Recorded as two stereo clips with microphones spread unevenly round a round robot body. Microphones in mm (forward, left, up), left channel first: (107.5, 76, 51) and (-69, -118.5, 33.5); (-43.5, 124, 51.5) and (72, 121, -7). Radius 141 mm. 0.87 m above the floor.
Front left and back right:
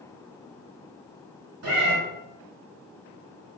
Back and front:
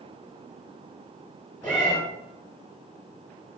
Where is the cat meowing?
105° right, 3.5 m.